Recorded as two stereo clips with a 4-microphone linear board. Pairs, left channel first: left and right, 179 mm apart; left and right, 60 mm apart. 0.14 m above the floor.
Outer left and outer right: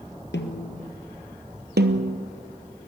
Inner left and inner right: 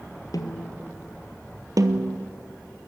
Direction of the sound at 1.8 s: 65° right (ahead or behind).